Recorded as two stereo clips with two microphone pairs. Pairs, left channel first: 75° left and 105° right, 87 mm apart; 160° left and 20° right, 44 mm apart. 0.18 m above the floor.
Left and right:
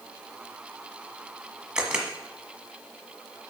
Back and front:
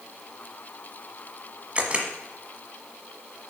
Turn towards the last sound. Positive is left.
turn(degrees=-35)